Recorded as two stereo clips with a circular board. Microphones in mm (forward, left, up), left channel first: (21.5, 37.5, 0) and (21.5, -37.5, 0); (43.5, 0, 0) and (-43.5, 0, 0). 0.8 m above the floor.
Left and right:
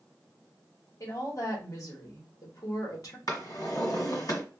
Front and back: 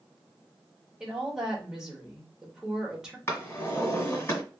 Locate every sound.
1.0 s a woman speaking: 100° left, 1.1 m
3.3 s a drawer: 60° left, 1.6 m